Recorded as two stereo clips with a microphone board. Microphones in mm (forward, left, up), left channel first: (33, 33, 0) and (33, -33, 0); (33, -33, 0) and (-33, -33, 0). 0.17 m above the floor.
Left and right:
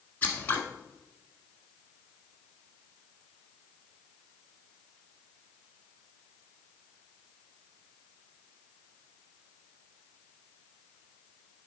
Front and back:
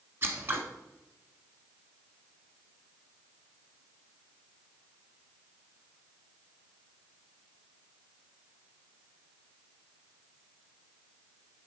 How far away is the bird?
I don't hear a bird.